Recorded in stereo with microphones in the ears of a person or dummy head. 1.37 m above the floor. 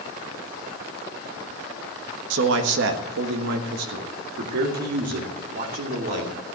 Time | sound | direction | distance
2.3 | a man speaking | 80° right | 1.4 m